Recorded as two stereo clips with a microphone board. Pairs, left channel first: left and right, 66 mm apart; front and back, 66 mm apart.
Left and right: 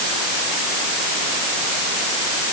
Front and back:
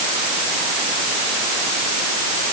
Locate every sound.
Only background noise.